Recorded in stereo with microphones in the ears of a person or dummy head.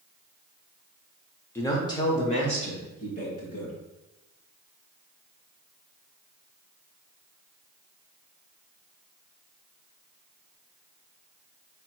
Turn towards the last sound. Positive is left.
turn(degrees=40)  # may be behind; listen again after turning